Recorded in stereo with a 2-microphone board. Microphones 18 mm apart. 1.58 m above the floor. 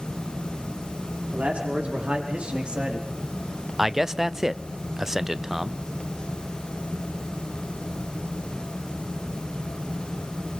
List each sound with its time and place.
1.3 s a man speaking: 75° right (ahead or behind), 5 m; by 3.1 s 55° right (ahead or behind), 3 m
3.8 s a man speaking: 20° right (ahead or behind), 0.6 m